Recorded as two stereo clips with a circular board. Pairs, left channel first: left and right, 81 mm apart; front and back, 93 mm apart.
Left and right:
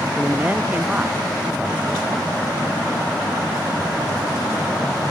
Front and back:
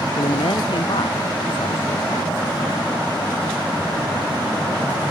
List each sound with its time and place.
0.2 s a man speaking: 20° right; by 2.4 s 15° right